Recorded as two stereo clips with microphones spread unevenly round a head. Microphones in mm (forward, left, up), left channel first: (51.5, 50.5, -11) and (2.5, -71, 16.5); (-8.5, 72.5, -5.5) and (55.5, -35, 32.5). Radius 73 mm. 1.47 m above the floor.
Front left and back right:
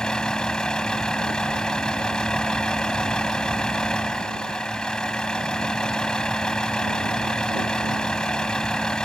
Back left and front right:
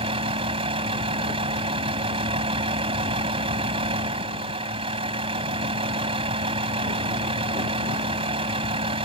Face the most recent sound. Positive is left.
turn(degrees=-20)